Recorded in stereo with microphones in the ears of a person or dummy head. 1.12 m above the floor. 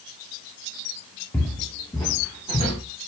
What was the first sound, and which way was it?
Footsteps, 5° left (ahead or behind).